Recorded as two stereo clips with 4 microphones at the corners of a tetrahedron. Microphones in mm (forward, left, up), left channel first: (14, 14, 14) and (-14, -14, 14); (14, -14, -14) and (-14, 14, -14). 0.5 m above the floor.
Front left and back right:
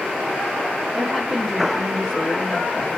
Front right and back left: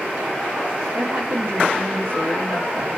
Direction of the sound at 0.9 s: 125° left.